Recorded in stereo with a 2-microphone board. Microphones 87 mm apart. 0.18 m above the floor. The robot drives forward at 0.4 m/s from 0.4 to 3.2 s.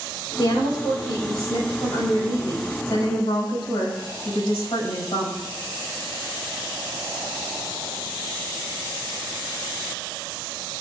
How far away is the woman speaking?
About 7.5 m.